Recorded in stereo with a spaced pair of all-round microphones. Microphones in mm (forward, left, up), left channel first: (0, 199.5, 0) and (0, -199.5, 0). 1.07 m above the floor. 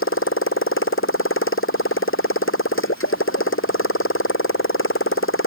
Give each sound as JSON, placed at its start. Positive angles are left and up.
{"t": 0.0, "sound": "a motorcycle", "side_deg": 30}